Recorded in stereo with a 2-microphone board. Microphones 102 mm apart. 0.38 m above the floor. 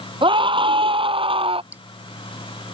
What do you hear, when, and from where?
0.2 s a scream: 55° right (ahead or behind); by 1.6 s 60° right (ahead or behind)
1.7 s dripping: 15° right (ahead or behind)